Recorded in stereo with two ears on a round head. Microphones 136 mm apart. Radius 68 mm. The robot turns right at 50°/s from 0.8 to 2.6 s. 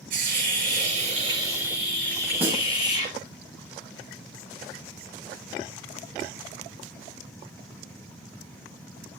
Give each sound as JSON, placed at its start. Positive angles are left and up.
{"t": 0.1, "sound": "a hiss", "azimuth_deg": -55, "distance_m": 8.5}
{"t": 2.4, "sound": "a snare drum", "side_deg": -15, "distance_m": 4.5}